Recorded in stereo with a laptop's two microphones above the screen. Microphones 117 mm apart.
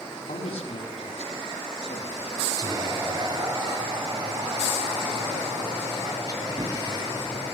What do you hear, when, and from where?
0.3 s a man speaking: 85° left, 6.5 m; by 2.4 s 75° left (ahead or behind), 9 m
2.6 s whispering: 40° right (ahead or behind), 6 m